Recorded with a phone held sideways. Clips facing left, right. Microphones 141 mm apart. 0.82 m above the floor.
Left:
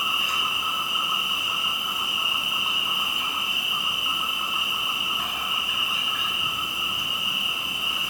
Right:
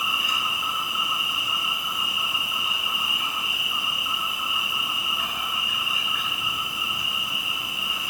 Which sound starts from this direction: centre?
An insect, at 0.0 s.